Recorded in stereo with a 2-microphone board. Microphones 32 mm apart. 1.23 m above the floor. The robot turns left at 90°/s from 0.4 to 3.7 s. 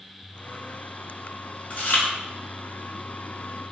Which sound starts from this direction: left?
Chewing, at 1.7 s.